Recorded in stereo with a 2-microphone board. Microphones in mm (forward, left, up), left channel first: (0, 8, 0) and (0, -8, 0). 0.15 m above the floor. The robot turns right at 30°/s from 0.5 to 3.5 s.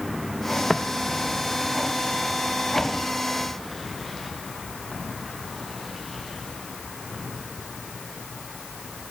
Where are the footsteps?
20° left (ahead or behind), 0.6 m; by 7.2 s centre (ahead or behind), 9 m.